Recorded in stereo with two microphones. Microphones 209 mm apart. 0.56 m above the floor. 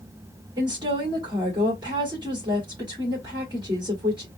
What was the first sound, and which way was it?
A woman speaking, 20° right (ahead or behind).